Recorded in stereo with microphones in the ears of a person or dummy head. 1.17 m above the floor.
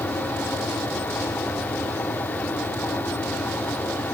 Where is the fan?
10° left (ahead or behind), 1.0 m.